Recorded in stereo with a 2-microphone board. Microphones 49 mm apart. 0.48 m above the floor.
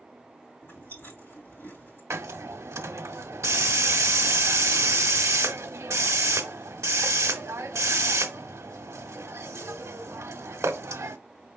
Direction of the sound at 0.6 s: 45° left (ahead or behind).